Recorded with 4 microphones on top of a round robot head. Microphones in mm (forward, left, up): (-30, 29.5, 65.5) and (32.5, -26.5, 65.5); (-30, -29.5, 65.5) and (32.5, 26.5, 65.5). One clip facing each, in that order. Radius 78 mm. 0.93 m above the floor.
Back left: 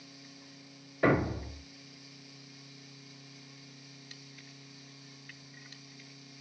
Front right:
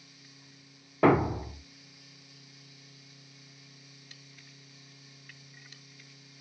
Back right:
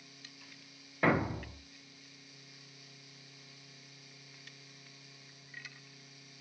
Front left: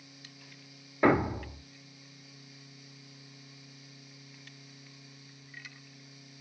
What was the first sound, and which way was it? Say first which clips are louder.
A thud: front right 4 dB, front left 5 dB; 35° right.